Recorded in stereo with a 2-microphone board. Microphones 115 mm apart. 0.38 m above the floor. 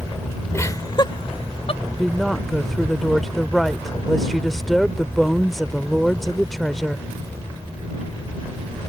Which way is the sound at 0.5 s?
25° left (ahead or behind).